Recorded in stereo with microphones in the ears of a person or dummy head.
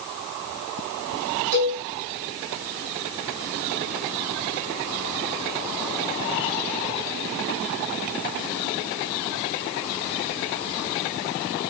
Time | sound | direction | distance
1.5 | a cowbell | 40° right (ahead or behind) | 3 m